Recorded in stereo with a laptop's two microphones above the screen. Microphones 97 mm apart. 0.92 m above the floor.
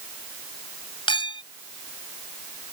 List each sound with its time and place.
1.1 s a clink: 65° left (ahead or behind)